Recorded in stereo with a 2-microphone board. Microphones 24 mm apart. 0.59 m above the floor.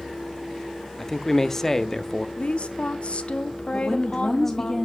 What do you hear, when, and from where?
1.0 s a man speaking: 20° left (ahead or behind), 0.7 m
2.4 s a woman speaking: 55° left (ahead or behind), 0.9 m
3.7 s a woman speaking: 15° left (ahead or behind), 1.4 m